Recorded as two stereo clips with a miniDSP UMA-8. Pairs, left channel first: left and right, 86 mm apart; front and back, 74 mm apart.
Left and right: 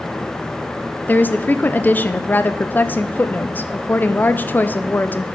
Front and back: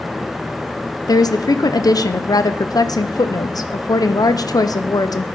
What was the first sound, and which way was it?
A woman speaking, 25° left.